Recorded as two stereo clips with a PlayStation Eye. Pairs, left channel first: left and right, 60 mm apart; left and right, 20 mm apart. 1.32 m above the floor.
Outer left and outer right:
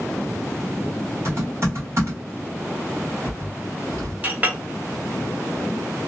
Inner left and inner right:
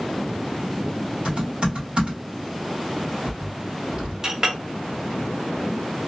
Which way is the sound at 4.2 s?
25° right (ahead or behind).